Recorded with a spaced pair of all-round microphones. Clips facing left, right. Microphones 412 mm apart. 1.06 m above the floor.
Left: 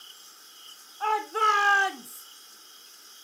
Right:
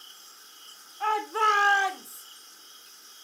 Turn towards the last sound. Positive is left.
turn(degrees=45)  # may be behind; listen again after turning